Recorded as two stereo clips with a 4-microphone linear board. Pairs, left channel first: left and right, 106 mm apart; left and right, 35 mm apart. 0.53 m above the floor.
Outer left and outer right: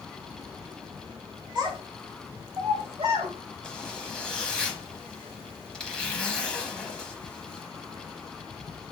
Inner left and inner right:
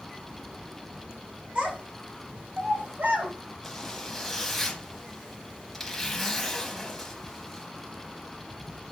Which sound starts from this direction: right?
A child speaking, at 1.6 s.